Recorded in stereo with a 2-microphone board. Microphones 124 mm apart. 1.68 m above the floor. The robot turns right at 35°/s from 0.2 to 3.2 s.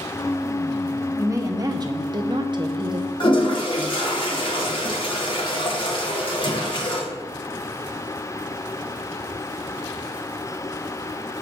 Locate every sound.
1.2 s a woman speaking: 140° right, 0.7 m; by 3.1 s 75° right, 0.7 m
3.2 s a toilet flushing: 40° left (ahead or behind), 1.5 m